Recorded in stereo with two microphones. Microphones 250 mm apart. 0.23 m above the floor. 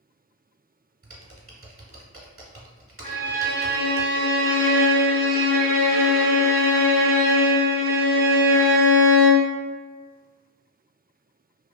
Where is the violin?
30° left (ahead or behind), 1.7 m.